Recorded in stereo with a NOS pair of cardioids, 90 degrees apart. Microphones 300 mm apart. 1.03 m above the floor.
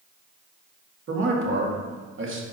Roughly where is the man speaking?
Ahead right.